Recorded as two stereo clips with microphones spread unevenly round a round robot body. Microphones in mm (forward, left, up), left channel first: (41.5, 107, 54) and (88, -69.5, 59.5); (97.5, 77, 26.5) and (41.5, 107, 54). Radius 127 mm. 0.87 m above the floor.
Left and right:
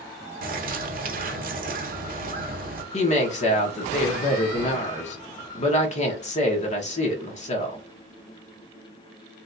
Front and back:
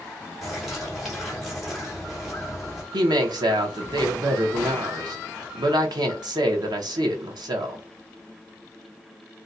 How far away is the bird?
About 0.7 m.